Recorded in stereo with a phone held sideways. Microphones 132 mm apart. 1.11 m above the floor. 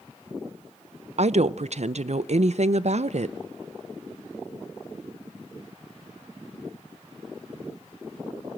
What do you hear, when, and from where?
1.2 s a woman speaking: 60° right (ahead or behind), 0.5 m